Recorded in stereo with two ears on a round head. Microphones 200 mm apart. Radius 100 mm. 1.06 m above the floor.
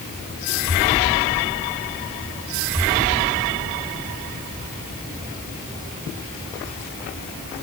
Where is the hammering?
I don't hear hammering.